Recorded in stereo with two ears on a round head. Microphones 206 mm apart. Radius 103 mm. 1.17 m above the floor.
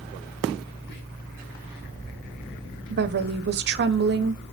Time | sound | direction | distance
0.9 | whispering | 50° left (ahead or behind) | 1.6 m
2.9 | a woman speaking | 45° right (ahead or behind) | 0.7 m